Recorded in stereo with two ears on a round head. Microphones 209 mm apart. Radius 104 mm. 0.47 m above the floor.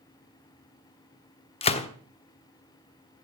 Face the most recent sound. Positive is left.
turn(degrees=25)  # may be behind; listen again after turning